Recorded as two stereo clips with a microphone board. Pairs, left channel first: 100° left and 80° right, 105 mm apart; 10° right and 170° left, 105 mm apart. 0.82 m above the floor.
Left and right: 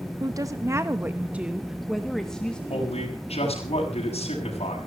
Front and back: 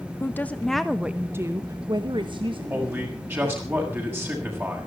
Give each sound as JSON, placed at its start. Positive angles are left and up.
{"t": 0.2, "sound": "a woman speaking", "azimuth_deg": -65, "distance_m": 0.9}
{"t": 2.7, "sound": "a man speaking", "azimuth_deg": 100, "distance_m": 6.5}